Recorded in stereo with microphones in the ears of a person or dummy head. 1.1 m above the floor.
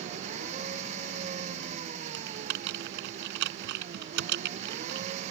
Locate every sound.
0.0 s an engine running: 40° right (ahead or behind)
2.1 s typing on a keyboard: 70° right (ahead or behind)